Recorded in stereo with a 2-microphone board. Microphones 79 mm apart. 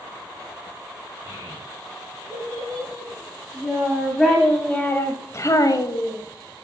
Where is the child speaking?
25° right (ahead or behind), 4.5 m; by 6.2 s 55° left (ahead or behind), 1.6 m.